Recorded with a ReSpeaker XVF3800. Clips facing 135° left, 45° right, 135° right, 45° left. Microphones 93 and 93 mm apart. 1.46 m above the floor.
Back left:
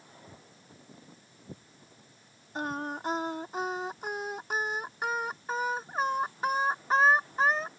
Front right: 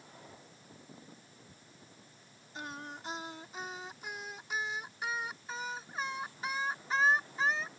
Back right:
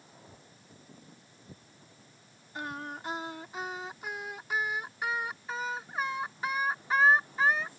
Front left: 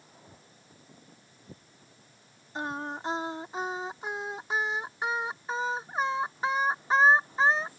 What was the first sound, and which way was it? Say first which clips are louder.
Footsteps: back left 1 dB, back right 1 dB; 115° left.